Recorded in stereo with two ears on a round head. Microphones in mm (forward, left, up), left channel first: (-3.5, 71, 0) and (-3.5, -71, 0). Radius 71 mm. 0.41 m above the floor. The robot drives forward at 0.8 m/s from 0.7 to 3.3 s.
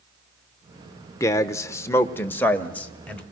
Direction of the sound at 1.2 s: 20° left (ahead or behind).